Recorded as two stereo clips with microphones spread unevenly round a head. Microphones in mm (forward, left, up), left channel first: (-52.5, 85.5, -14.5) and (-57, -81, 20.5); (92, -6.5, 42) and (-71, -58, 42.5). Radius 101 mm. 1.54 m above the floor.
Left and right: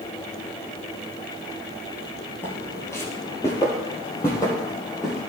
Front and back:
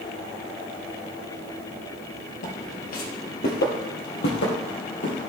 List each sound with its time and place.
2.4 s footsteps: straight ahead, 1.9 m; by 5.2 s 10° left, 3.5 m